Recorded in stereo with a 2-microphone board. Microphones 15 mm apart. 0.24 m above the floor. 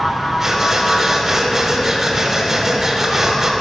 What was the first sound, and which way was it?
Breathing, 20° right (ahead or behind).